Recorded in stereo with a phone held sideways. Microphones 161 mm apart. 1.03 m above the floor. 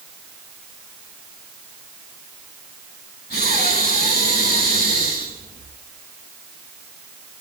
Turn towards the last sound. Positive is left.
turn(degrees=85)